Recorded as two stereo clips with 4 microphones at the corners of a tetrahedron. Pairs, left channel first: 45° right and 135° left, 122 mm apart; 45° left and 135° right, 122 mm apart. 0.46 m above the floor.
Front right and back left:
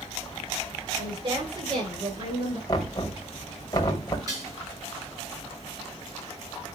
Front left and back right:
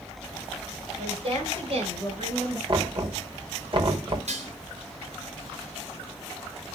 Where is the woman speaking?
Straight behind, 7 m; by 2.6 s 175° right, 7.5 m.